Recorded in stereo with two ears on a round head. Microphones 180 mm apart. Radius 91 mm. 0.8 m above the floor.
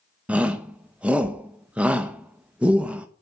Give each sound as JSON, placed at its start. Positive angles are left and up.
{"t": 0.3, "sound": "a shout", "side_deg": -5, "distance_m": 0.6}